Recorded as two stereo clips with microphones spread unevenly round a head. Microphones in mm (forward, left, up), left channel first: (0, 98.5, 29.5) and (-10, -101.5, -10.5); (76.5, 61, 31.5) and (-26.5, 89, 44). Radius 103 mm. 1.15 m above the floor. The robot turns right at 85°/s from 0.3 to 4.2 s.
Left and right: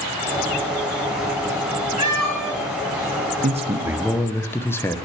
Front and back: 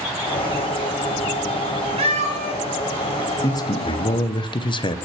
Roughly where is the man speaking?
Ahead right.